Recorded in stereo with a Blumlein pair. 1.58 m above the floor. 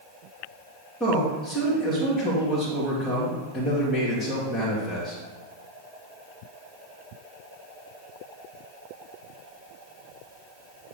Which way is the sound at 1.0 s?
20° left.